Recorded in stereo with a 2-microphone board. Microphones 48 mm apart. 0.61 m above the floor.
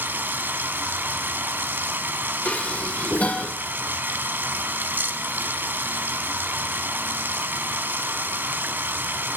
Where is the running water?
45° right (ahead or behind), 0.8 m.